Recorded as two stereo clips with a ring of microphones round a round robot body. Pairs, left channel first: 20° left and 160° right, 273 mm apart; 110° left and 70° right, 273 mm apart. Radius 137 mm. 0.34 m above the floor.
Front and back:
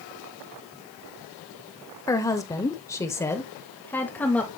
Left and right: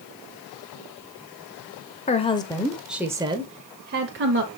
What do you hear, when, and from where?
2.1 s a woman speaking: 85° left, 1.0 m; by 4.5 s 60° right, 1.3 m